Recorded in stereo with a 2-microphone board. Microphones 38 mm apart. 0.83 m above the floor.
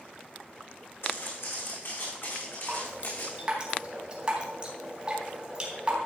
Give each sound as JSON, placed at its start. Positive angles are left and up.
{"t": 1.0, "sound": "footsteps", "side_deg": 75, "distance_m": 4.0}
{"t": 2.7, "sound": "dripping", "side_deg": -25, "distance_m": 3.5}